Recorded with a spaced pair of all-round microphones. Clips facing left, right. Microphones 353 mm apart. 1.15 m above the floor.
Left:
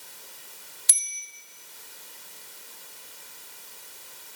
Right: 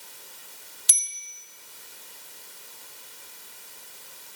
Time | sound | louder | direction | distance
0.9 | a bicycle bell | right 2 dB | 45° right (ahead or behind) | 2.5 m